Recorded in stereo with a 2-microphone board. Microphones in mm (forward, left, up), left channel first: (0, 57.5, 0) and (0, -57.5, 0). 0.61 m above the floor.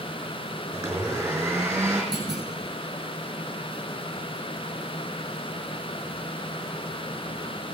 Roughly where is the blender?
Centre.